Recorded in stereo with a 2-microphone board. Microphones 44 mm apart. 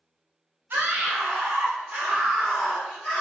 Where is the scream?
55° right (ahead or behind), 2 m; by 3.2 s 20° left (ahead or behind), 2.0 m.